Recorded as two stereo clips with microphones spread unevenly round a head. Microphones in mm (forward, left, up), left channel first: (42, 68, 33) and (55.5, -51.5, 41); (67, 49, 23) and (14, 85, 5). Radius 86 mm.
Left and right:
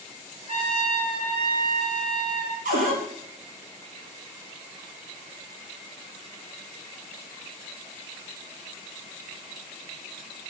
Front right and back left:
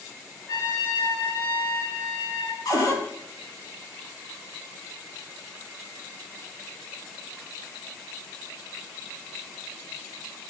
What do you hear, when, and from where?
0.5 s a trumpet: 50° right, 4.5 m
2.6 s a cupboard door: 75° right, 4.5 m